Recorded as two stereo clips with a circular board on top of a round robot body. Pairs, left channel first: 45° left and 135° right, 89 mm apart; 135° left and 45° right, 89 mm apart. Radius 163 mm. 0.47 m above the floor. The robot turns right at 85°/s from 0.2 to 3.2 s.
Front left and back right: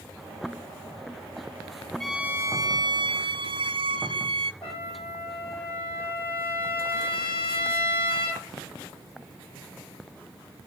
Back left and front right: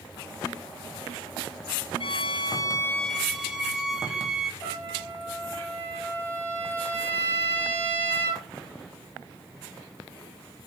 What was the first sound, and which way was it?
A violin, 140° left.